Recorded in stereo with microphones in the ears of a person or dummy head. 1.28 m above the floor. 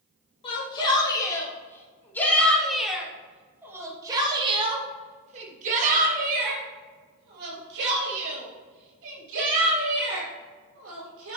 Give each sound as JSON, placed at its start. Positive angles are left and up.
{"t": 0.4, "sound": "a shout", "side_deg": 25, "distance_m": 3.0}